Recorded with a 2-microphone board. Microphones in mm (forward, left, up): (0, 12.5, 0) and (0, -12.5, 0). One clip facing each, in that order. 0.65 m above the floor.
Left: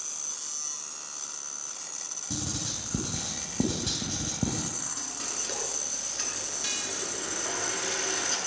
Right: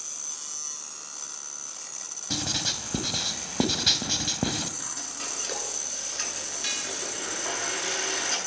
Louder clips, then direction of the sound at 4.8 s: Right 1 dB; 15° right (ahead or behind).